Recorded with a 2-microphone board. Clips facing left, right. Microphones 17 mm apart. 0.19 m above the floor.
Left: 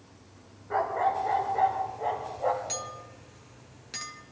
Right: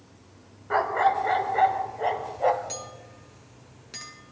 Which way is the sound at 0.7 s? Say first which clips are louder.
Right 4 dB; 55° right (ahead or behind).